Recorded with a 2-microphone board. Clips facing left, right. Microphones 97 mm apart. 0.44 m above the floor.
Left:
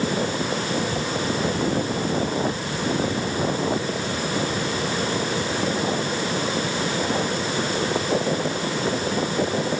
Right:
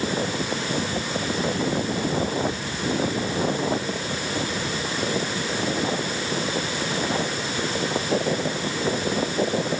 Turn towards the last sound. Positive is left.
No sound to turn to.